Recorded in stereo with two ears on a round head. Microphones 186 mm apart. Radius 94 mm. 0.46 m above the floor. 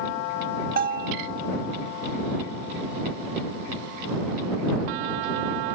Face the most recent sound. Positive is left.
turn(degrees=-45)  # may be behind; listen again after turning